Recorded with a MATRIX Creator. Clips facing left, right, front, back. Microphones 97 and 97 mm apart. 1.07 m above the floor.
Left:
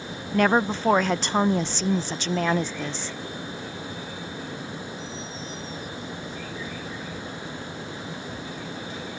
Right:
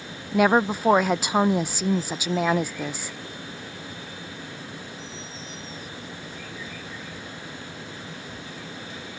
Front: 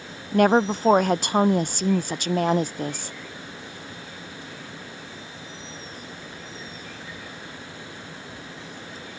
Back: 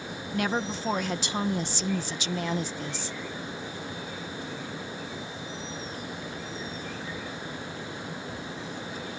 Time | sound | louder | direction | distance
0.3 | a woman speaking | right 1 dB, front 11 dB | 10° right | ?